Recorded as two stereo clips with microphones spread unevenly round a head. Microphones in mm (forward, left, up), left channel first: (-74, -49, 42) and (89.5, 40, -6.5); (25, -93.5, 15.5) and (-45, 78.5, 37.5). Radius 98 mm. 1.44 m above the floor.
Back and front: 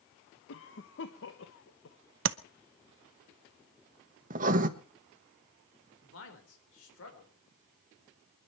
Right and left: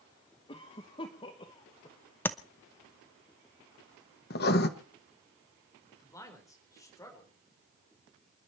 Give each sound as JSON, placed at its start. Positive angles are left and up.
{"t": 0.5, "sound": "a cough", "azimuth_deg": -135, "distance_m": 1.2}
{"t": 2.2, "sound": "tapping", "azimuth_deg": 15, "distance_m": 0.6}
{"t": 4.3, "sound": "writing", "azimuth_deg": -25, "distance_m": 1.1}
{"t": 6.0, "sound": "a man speaking", "azimuth_deg": -140, "distance_m": 4.5}